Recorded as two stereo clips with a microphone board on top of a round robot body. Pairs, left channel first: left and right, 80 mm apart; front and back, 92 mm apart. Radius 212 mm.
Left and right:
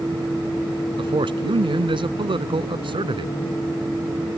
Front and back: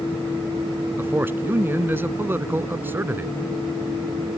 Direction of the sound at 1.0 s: 110° right.